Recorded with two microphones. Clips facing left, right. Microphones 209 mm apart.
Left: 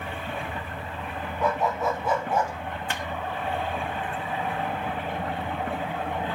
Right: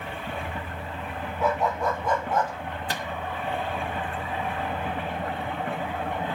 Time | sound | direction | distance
1.4 | a dog barking | centre (ahead or behind) | 2 m
2.9 | a microwave | 40° right (ahead or behind) | 0.9 m